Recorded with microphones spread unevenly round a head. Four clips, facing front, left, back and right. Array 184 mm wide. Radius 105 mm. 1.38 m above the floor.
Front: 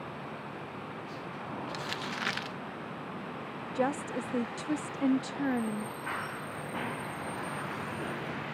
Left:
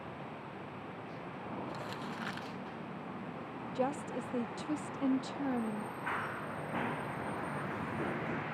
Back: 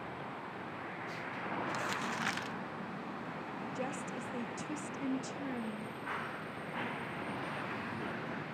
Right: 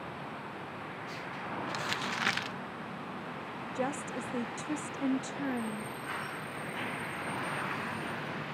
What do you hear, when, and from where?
1.7 s crumpling: 90° right, 0.9 m
3.8 s a woman speaking: 5° right, 0.7 m
6.1 s running footsteps: 50° left, 5 m; by 8.4 s 95° left, 4 m